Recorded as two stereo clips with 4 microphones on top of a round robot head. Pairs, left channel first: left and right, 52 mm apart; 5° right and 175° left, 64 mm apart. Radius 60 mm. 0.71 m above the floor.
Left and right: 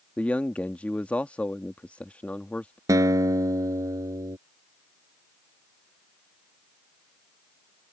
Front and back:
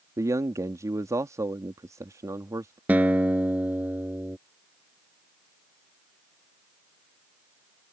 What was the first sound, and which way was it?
A man speaking, 150° left.